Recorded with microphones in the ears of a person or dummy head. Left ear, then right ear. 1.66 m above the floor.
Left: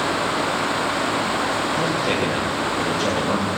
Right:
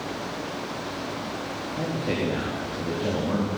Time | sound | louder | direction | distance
1.7 | a man speaking | left 8 dB | 90° left | 4 m